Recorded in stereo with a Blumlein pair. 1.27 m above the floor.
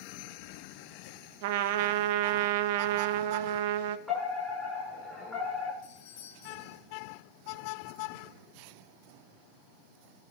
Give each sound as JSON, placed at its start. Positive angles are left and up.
{"t": 1.4, "sound": "a trumpet", "azimuth_deg": -50, "distance_m": 0.6}
{"t": 4.1, "sound": "a fire alarm", "azimuth_deg": 10, "distance_m": 7.5}
{"t": 5.8, "sound": "a doorbell", "azimuth_deg": 50, "distance_m": 3.0}